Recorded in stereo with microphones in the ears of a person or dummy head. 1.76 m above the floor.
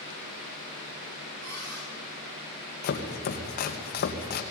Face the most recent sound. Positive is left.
turn(degrees=50)  # may be behind; listen again after turning